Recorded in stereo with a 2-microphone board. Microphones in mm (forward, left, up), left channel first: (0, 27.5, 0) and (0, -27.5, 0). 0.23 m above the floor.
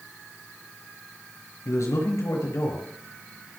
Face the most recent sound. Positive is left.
turn(degrees=70)  # may be behind; listen again after turning